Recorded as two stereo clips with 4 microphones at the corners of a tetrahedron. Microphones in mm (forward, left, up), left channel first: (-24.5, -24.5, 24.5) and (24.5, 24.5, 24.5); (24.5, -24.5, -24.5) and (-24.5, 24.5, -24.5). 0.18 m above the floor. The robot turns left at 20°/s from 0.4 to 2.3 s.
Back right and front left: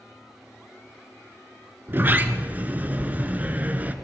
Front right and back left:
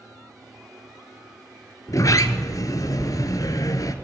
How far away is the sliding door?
About 0.6 m.